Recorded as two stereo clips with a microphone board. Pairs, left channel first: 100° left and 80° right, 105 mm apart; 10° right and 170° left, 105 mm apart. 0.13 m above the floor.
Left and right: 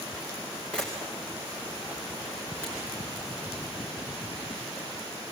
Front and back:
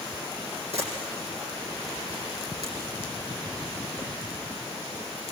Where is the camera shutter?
Straight behind, 7.5 m.